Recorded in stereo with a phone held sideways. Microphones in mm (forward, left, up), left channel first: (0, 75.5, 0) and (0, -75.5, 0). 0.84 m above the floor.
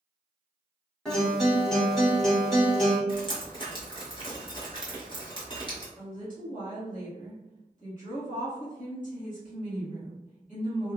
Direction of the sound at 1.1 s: 5° left (ahead or behind).